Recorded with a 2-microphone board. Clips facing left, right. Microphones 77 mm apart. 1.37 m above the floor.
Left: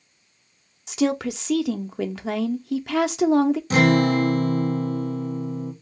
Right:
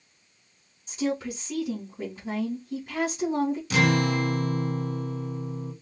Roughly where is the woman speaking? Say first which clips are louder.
Left 6 dB; left.